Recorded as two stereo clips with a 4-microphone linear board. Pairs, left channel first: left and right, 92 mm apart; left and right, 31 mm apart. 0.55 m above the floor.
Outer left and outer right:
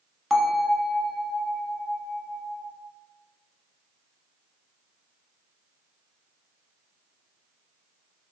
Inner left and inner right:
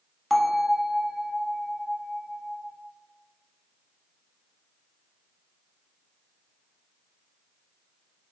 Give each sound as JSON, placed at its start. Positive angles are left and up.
{"t": 0.3, "sound": "a bell", "side_deg": 0, "distance_m": 0.6}